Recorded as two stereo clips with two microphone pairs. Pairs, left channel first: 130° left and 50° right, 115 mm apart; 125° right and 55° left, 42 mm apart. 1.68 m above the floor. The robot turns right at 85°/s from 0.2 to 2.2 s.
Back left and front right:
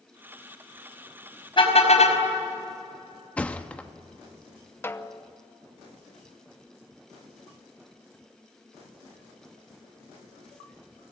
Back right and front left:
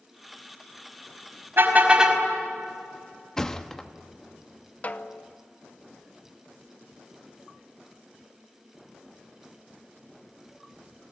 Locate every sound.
1.6 s a car horn: 85° left, 5 m; by 2.2 s 140° left, 5 m
3.4 s a thud: 175° right, 1.1 m
4.8 s a snare drum: 170° right, 0.9 m